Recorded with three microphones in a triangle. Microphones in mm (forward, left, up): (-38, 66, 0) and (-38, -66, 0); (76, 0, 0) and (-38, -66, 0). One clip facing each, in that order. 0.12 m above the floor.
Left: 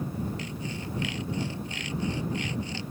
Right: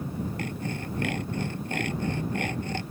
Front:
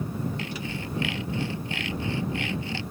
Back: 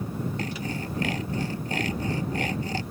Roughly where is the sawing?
Right.